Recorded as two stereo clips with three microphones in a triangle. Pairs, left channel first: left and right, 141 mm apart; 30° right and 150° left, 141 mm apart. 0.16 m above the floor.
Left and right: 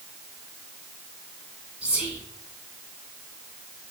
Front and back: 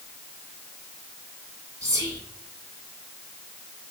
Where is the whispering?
165° right, 1.8 m.